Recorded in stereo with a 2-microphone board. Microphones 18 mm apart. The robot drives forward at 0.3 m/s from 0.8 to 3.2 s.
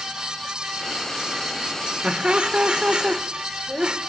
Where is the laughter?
75° right (ahead or behind), 1.4 m; by 4.0 s 65° right (ahead or behind), 1.5 m.